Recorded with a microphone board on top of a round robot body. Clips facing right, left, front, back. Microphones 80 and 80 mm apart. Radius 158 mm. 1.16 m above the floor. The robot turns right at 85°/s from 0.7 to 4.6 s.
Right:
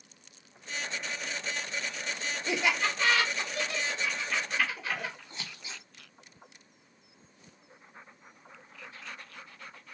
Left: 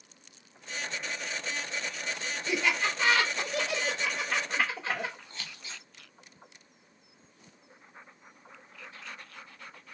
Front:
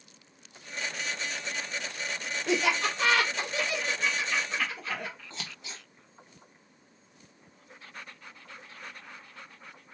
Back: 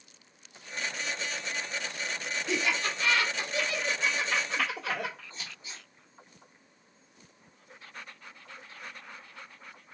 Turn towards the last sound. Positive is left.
turn(degrees=-15)